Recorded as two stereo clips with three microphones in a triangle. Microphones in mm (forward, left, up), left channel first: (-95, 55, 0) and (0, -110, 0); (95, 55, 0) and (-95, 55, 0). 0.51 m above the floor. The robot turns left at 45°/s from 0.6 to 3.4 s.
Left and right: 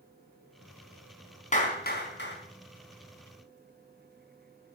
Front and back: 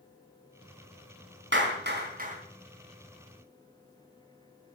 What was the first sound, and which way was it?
A clap, 170° left.